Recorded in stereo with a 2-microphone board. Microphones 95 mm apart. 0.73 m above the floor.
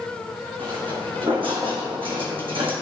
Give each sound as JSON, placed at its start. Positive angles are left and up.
{"t": 0.6, "sound": "footsteps", "side_deg": -60, "distance_m": 2.5}